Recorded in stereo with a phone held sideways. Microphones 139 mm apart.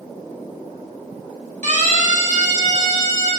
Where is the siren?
60° right (ahead or behind), 7 m; by 3.3 s 70° right (ahead or behind), 9 m.